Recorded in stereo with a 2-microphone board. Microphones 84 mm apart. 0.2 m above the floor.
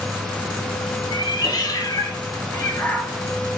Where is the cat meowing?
65° left (ahead or behind), 2.5 m; by 3.2 s 15° left (ahead or behind), 2.5 m.